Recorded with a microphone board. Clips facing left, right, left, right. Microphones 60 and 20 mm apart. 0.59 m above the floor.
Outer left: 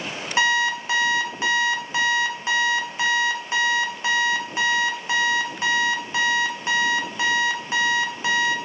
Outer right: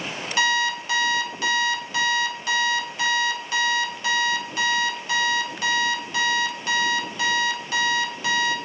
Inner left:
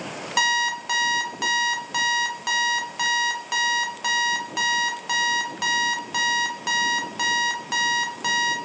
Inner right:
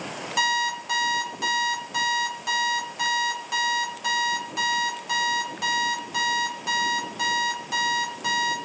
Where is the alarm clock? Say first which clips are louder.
Outer left 2 dB, inner left 2 dB; 25° left (ahead or behind), 0.7 m.